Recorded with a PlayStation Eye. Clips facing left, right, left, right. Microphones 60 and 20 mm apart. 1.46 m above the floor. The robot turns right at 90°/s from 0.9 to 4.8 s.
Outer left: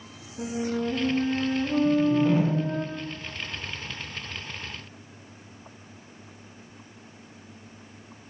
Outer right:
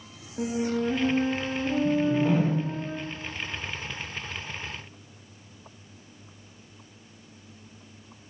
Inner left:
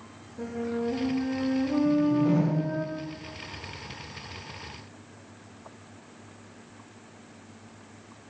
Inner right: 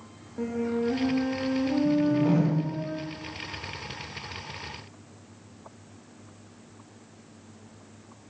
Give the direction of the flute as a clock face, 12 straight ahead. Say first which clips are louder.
Outer right 1 dB, inner right 3 dB; 2 o'clock.